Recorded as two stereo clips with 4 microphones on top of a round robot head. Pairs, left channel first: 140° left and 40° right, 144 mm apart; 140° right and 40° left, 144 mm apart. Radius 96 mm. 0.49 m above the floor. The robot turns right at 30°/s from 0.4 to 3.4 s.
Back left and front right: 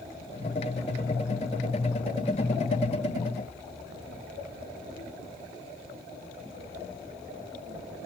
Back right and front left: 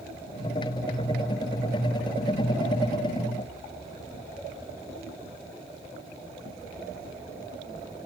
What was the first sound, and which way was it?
Only background noise.